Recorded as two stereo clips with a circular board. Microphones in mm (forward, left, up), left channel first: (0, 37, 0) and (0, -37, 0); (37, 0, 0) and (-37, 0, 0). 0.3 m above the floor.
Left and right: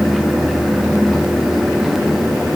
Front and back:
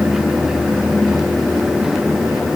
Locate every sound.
Only background noise.